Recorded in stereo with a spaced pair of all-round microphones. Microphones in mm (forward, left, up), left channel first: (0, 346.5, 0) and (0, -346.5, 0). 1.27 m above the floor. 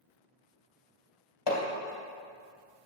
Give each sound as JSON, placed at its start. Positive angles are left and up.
{"t": 1.5, "sound": "hammering", "side_deg": 35, "distance_m": 2.5}